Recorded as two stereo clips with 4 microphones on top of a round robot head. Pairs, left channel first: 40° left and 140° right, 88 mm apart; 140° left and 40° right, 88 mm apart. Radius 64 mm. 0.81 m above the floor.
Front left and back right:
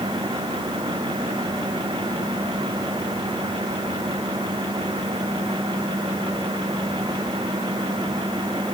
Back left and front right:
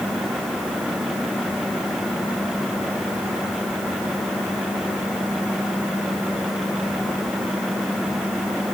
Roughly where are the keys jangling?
No keys jangling in this recording.